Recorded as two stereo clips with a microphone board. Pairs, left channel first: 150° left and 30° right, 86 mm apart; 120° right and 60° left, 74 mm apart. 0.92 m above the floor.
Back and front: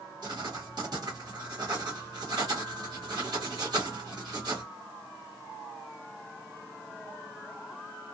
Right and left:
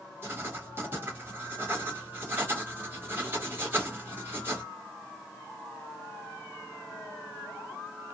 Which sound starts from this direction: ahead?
Writing, at 0.2 s.